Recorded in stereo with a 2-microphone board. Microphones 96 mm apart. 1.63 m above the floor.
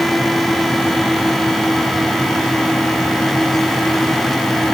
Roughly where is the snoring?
I don't hear snoring.